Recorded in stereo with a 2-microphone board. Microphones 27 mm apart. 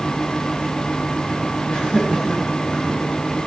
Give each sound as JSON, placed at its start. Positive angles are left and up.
{"t": 1.7, "sound": "laughter", "side_deg": 50, "distance_m": 3.5}